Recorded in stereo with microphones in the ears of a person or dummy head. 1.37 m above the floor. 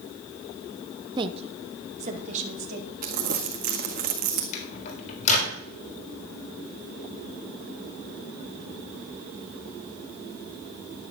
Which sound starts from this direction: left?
A microwave, at 4.5 s.